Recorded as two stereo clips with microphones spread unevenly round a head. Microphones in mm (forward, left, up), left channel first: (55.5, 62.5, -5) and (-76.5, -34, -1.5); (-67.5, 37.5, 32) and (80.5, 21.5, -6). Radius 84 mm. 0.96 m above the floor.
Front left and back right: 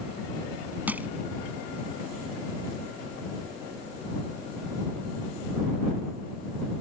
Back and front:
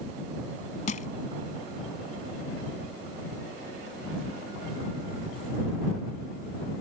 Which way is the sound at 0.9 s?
135° left.